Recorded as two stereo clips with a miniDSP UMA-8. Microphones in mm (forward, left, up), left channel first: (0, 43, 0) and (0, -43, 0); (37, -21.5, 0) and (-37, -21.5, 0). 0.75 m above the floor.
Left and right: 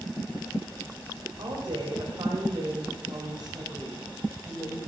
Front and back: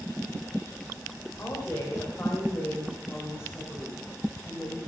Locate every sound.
1.4 s a woman speaking: 60° right, 3 m